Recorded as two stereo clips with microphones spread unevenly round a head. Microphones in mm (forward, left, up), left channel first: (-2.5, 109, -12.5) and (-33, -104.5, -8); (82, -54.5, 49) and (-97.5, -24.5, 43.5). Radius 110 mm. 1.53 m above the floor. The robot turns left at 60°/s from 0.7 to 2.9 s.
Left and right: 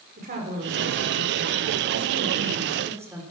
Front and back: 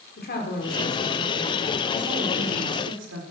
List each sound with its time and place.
0.2 s a woman speaking: 45° right, 4 m; by 3.2 s 175° right, 4 m